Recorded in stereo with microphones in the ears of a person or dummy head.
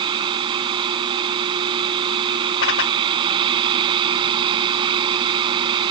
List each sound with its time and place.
0.0 s a fan: 30° right (ahead or behind)
2.6 s a whoosh: 75° left (ahead or behind)